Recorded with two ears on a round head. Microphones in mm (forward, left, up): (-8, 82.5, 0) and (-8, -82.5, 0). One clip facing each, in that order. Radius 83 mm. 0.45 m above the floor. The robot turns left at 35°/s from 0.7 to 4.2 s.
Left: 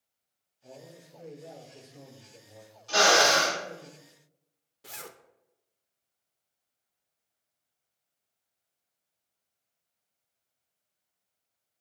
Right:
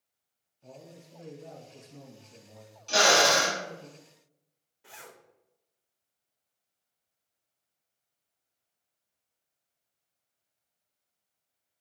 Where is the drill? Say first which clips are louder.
Even; 35° right (ahead or behind), 2.5 m; by 3.6 s 10° right (ahead or behind), 2.5 m.